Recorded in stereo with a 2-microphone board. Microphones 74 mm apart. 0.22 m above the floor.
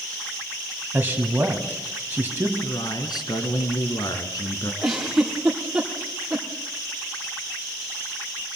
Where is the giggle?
10° right (ahead or behind), 4 m.